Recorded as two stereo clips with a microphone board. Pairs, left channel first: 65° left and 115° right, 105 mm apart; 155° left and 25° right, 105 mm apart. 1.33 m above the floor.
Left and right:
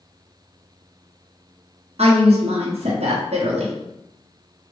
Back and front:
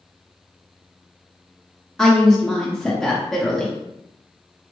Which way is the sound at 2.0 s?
120° right.